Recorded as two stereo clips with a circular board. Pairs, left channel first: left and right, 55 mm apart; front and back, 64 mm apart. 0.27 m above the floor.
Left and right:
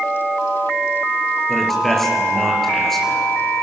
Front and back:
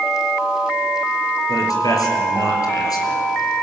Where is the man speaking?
5° left, 4.5 m.